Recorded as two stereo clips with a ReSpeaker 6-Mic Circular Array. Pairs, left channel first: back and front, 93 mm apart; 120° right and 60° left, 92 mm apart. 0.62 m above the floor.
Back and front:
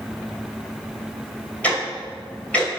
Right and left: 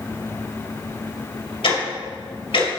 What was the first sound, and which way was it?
Ticking, 105° right.